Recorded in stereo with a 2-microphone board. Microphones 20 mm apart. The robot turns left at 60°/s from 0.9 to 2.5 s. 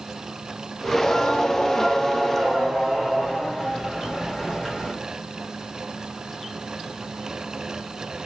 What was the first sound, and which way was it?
Singing, 80° left.